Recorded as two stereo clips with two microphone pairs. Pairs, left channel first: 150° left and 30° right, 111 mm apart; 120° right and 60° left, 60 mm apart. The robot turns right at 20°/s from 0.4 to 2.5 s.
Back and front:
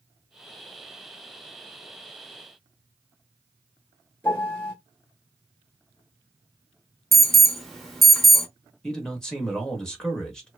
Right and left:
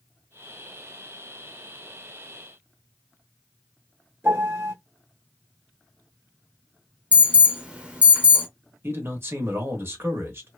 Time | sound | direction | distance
4.2 | a piano | 75° left | 1.6 m
7.1 | an alarm | 60° left | 0.7 m
8.8 | a man speaking | 65° left | 1.0 m